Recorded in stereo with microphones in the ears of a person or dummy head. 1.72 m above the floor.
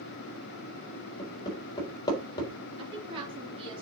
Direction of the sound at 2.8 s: 30° right (ahead or behind).